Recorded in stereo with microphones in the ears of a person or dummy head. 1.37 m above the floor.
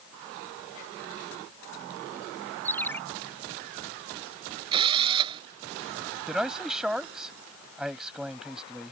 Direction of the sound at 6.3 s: Centre (ahead or behind).